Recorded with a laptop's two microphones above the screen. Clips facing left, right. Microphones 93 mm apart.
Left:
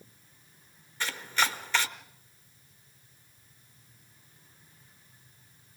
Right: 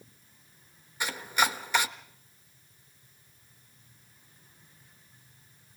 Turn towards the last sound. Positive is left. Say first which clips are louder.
# right 2 dB
turn(degrees=-15)  # may be behind; listen again after turning